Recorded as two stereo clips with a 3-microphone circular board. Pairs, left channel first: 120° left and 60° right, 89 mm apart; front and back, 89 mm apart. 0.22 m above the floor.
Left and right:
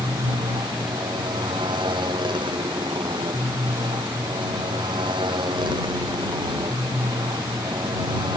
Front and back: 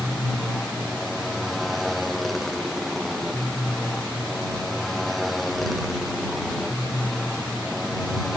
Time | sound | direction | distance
0.0 | a motorcycle | 90° right | ?